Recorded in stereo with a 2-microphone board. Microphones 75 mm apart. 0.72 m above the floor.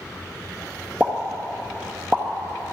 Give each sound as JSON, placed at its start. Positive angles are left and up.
{"t": 1.0, "sound": "a pop", "side_deg": -15, "distance_m": 1.0}